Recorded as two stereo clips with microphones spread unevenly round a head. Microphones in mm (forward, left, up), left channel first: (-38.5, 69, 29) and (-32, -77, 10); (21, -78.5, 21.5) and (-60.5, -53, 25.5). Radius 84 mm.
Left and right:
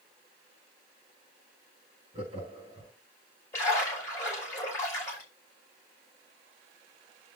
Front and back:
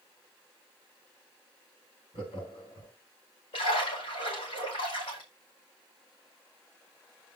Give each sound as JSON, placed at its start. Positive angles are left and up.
{"t": 2.1, "sound": "laughter", "azimuth_deg": -25, "distance_m": 3.0}
{"t": 3.5, "sound": "a splash", "azimuth_deg": 20, "distance_m": 5.0}